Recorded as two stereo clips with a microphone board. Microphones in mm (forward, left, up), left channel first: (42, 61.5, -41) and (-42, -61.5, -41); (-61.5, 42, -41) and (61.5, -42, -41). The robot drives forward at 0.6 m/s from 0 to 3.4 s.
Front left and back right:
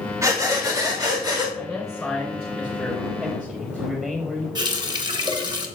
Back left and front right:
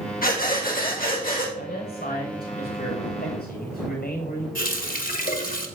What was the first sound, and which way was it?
Breathing, 165° left.